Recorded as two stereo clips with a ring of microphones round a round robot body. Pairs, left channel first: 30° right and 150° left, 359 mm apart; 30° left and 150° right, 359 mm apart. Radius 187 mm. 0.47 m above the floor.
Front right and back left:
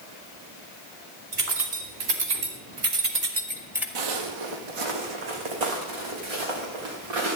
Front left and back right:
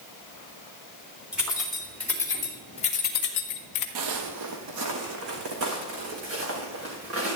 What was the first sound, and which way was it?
Keys jangling, 125° left.